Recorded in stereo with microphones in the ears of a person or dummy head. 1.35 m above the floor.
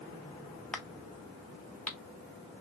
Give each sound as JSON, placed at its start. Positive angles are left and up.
{"t": 0.7, "sound": "a crack", "side_deg": 10, "distance_m": 0.7}